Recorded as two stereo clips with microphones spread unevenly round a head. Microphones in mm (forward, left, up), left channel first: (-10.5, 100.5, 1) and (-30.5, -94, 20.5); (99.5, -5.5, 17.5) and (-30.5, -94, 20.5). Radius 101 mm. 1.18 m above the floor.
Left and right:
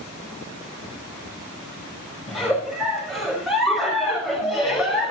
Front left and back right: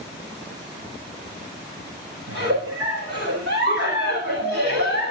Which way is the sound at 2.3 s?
175° left.